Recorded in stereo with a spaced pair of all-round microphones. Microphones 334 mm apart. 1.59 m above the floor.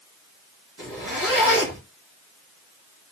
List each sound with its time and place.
0.8 s a zipper: 70° right (ahead or behind), 3.5 m